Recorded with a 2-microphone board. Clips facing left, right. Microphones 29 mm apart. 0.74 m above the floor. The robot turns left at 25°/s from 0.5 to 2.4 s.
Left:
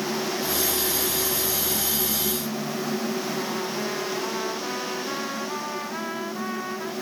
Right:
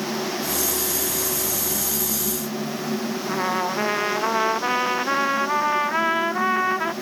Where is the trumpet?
40° right (ahead or behind).